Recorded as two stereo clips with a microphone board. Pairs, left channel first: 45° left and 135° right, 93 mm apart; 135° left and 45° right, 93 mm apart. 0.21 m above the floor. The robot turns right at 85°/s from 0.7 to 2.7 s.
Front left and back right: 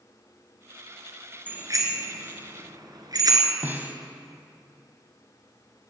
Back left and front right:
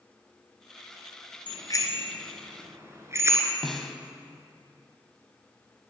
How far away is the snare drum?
About 1.2 m.